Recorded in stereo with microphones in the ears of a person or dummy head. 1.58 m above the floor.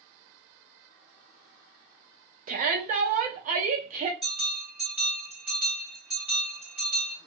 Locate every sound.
2.5 s a shout: 40° right (ahead or behind), 0.5 m
4.2 s a bell: centre (ahead or behind), 1.4 m